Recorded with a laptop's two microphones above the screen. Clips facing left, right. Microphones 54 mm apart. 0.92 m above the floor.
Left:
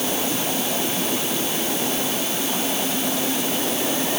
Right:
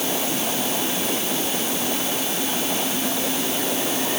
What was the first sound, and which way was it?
Only background noise.